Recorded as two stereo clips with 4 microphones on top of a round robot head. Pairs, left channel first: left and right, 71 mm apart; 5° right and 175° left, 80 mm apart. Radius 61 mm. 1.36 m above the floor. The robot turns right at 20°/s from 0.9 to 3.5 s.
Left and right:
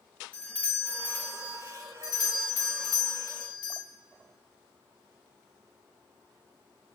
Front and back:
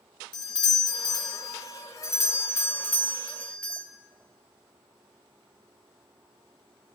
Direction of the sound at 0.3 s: 10° left.